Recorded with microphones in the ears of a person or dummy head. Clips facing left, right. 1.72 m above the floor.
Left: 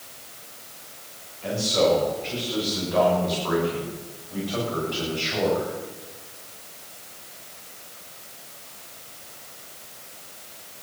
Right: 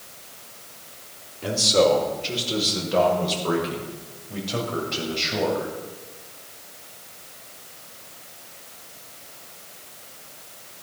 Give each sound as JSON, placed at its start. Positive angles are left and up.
{"t": 1.4, "sound": "a man speaking", "side_deg": -65, "distance_m": 5.0}